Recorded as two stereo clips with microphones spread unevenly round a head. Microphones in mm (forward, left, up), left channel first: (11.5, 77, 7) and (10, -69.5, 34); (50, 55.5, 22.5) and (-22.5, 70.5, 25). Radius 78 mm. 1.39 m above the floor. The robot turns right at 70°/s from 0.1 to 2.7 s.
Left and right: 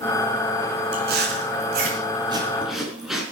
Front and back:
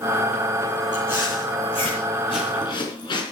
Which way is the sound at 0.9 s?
130° right.